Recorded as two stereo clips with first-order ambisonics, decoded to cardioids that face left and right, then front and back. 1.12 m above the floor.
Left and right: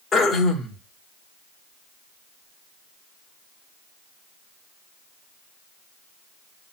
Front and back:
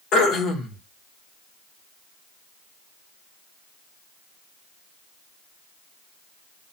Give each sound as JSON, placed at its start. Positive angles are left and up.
{"t": 0.1, "sound": "throat clearing", "azimuth_deg": 25, "distance_m": 0.9}